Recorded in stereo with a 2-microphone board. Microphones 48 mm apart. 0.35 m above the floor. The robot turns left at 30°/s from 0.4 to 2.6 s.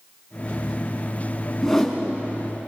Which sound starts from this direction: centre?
A whoosh, at 1.6 s.